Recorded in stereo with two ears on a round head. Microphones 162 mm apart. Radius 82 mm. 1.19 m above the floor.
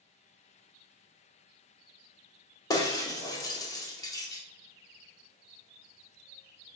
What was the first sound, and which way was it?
Breaking glass, 20° left (ahead or behind).